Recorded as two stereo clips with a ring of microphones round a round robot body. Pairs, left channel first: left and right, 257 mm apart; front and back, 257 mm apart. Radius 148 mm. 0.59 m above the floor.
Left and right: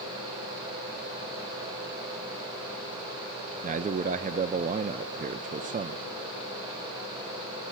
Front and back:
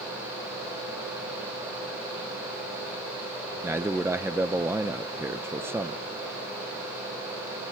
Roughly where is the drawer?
I don't hear a drawer.